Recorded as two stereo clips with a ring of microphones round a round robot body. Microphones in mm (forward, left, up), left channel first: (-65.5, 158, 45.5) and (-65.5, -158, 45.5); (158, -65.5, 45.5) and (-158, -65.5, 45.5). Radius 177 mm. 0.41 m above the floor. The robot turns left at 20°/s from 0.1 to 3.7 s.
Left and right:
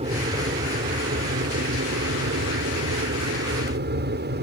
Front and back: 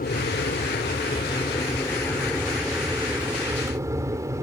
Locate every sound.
0.0 s an aircraft: 35° right; by 4.4 s 105° right